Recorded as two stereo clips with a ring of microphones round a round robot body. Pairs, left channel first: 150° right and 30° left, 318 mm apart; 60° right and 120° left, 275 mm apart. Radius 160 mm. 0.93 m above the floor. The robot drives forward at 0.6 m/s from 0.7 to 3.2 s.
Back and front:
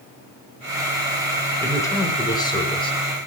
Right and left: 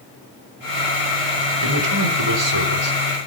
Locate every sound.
1.6 s a man speaking: 130° left, 4.5 m; by 3.2 s 135° left, 5 m